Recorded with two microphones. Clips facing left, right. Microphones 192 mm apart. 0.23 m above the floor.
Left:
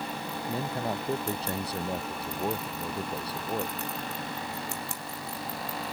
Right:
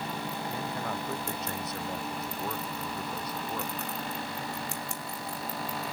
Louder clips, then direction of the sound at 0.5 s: Left 6 dB; 30° left (ahead or behind).